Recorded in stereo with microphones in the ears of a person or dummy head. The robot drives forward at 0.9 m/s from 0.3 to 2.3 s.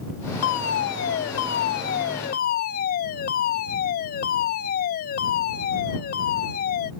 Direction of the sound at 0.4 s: 75° left (ahead or behind).